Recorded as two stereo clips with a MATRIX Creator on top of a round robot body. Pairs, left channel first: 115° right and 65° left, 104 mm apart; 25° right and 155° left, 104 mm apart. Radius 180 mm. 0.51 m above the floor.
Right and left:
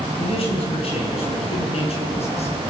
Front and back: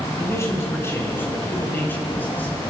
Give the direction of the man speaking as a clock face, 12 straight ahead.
3 o'clock.